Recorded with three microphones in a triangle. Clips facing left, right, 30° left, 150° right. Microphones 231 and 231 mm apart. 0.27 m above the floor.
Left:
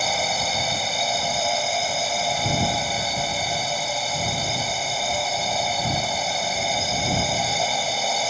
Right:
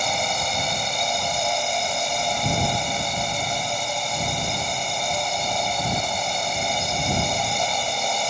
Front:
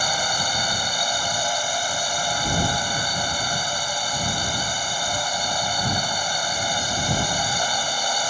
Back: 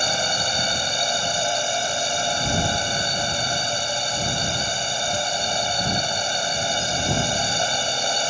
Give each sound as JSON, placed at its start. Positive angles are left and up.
{"t": 0.0, "sound": "a drone", "azimuth_deg": 175}